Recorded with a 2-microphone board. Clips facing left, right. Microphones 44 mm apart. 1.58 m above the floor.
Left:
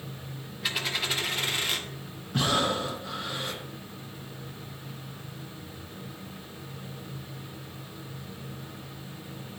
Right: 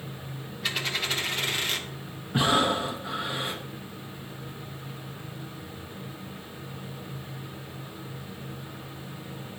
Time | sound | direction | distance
0.6 | a dropped coin | centre (ahead or behind) | 1.0 m
2.3 | breathing | 20° right (ahead or behind) | 0.9 m